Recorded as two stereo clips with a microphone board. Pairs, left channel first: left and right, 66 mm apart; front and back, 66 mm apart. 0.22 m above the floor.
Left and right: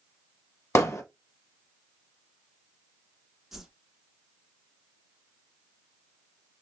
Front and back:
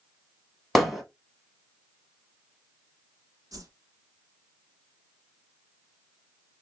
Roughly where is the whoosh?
Behind.